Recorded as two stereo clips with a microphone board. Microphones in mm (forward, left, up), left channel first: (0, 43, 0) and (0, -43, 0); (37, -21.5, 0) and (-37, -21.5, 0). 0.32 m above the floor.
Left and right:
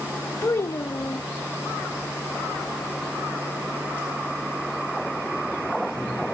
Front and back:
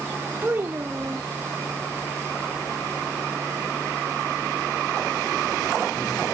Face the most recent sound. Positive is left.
turn(degrees=130)